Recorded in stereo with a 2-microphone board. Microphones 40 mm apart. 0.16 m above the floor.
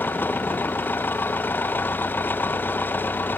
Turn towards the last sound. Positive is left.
turn(degrees=60)  # may be behind; listen again after turning